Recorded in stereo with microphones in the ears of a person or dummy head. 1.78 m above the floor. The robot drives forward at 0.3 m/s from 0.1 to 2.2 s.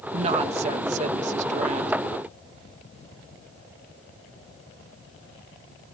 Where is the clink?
No clink in this recording.